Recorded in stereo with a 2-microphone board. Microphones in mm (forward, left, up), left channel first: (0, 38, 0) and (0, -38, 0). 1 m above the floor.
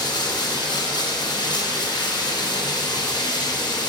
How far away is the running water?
About 1.0 m.